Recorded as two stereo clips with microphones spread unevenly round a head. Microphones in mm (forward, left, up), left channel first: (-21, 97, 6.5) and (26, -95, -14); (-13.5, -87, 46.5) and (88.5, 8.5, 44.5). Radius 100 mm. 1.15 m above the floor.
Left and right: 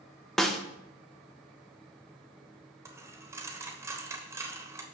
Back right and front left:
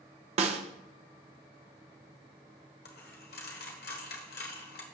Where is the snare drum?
20° left, 0.8 m.